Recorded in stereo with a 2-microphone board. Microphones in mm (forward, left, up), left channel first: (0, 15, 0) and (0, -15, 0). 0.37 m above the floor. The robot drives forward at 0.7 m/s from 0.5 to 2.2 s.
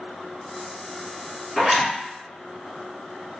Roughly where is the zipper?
Centre.